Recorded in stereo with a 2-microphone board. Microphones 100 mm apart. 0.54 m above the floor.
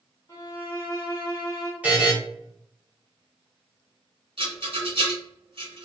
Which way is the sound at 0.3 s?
30° left (ahead or behind).